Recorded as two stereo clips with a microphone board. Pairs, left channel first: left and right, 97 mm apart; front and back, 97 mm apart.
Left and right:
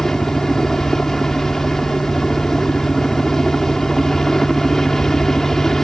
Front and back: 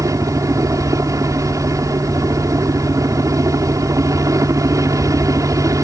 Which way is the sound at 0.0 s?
170° left.